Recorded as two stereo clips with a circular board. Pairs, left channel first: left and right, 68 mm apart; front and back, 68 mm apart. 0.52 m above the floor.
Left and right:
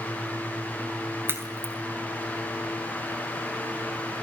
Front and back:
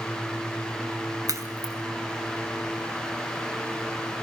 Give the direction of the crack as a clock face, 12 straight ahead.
5 o'clock.